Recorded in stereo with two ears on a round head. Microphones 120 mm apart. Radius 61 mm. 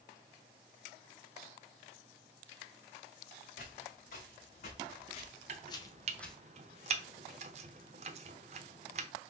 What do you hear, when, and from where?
3.6 s footsteps: 75° left (ahead or behind), 3 m; by 6.4 s centre (ahead or behind), 1.3 m
5.5 s chopping: 50° right (ahead or behind), 0.8 m